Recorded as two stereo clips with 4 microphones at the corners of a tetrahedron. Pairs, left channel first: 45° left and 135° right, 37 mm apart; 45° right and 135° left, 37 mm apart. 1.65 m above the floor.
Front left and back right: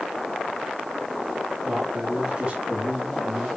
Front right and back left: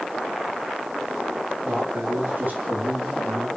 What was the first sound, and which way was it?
A man speaking, 165° left.